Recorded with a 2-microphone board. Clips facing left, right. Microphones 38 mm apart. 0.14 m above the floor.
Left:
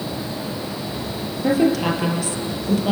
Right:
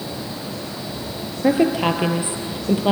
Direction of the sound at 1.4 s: 25° right (ahead or behind).